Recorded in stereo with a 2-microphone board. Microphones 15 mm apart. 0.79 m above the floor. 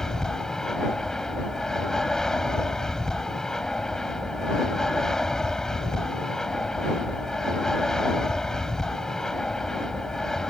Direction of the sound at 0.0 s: 35° left (ahead or behind).